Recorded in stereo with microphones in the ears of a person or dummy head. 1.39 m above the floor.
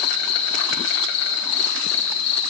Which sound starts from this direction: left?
An insect, at 0.0 s.